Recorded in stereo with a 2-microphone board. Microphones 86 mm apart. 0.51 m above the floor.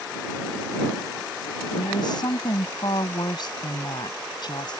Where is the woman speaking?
60° left (ahead or behind).